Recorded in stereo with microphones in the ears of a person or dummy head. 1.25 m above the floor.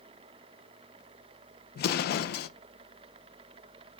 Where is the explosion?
55° left (ahead or behind), 0.5 m.